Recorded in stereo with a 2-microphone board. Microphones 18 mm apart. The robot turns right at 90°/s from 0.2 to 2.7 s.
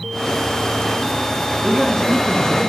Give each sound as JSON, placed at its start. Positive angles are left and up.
{"t": 1.6, "sound": "a man speaking", "azimuth_deg": -55, "distance_m": 1.9}